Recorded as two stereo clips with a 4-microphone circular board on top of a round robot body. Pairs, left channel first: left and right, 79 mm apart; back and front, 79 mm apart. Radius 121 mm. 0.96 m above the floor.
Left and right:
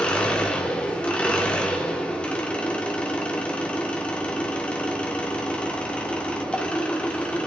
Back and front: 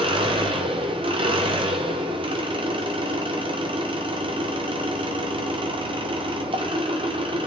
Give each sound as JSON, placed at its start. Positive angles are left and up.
{"t": 0.0, "sound": "an engine running", "azimuth_deg": 15, "distance_m": 1.2}